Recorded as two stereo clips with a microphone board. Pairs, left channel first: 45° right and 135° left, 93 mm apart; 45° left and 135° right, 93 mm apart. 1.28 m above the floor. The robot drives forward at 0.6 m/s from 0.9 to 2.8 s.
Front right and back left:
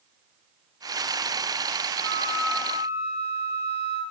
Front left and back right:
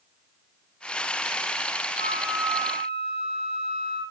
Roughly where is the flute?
Left.